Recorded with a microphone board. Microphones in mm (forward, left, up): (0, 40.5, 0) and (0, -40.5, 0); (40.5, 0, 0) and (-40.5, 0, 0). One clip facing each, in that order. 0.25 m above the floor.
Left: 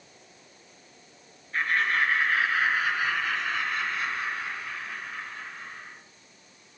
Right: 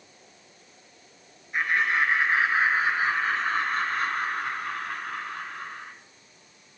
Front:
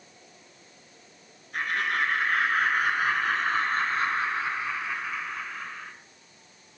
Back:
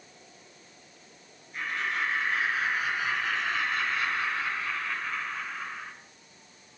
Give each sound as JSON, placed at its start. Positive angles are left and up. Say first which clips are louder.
{"t": 1.5, "sound": "laughter", "louder": "right 1 dB, front 4 dB", "azimuth_deg": -15, "distance_m": 3.0}